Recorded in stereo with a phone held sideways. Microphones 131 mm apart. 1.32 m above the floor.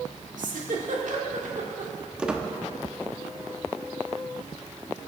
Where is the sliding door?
I don't hear a sliding door.